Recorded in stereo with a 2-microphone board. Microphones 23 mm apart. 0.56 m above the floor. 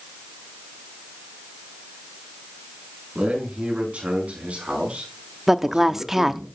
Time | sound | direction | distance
3.1 | a man speaking | 80° right | 6.5 m
5.5 | a woman speaking | 15° right (ahead or behind) | 0.6 m